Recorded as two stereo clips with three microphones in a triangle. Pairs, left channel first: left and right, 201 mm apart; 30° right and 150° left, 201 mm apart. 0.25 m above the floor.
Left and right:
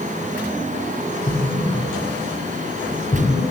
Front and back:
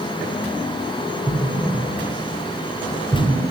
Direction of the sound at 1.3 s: 100° left.